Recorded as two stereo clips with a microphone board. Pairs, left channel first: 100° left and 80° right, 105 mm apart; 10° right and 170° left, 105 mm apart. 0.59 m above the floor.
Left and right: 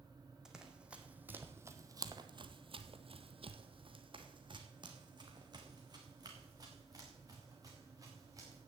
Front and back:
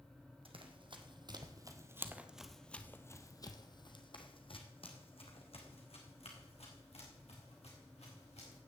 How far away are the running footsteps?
About 1.7 m.